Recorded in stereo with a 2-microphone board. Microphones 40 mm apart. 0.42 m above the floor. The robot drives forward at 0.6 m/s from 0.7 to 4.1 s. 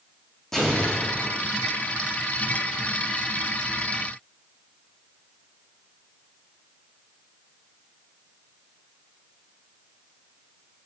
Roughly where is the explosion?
Centre.